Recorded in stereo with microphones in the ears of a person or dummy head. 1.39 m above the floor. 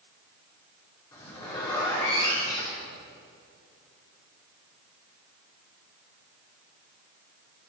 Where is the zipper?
30° left (ahead or behind), 5 m.